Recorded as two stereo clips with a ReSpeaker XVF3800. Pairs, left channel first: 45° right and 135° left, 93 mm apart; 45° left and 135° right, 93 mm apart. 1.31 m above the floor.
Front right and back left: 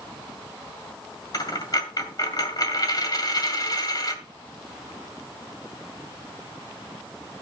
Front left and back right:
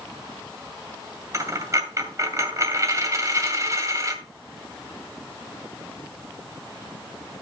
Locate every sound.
1.3 s a dropped coin: 85° right, 2 m